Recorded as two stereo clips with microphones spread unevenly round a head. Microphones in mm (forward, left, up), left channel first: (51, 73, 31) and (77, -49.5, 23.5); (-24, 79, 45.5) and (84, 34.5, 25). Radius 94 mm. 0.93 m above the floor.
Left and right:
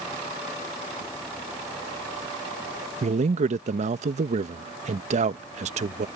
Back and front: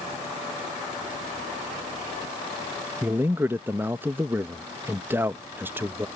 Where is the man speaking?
90° right.